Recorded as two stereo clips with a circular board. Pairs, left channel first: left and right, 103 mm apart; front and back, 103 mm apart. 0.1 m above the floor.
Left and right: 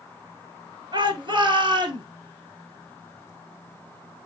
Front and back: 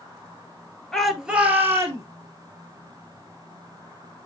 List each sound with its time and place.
0.9 s a shout: 85° right, 1.7 m; by 2.0 s 125° right, 2.5 m